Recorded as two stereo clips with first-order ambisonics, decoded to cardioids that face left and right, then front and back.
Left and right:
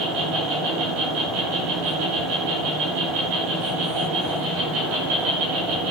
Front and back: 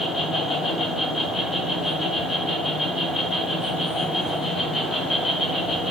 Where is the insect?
70° right, 7 m.